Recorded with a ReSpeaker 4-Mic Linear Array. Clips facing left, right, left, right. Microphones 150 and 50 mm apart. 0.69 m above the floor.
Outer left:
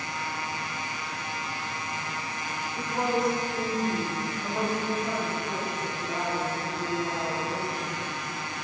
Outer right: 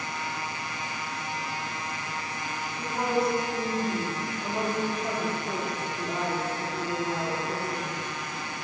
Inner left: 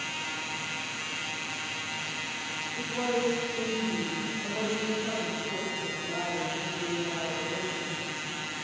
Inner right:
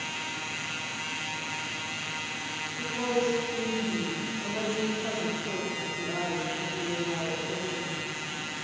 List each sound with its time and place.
2.8 s a woman speaking: 30° left (ahead or behind), 1.9 m; by 8.0 s 75° right (ahead or behind), 3 m